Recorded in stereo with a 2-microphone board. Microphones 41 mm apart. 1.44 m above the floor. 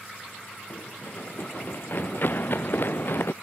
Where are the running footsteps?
50° left (ahead or behind); by 3.3 s 55° left (ahead or behind).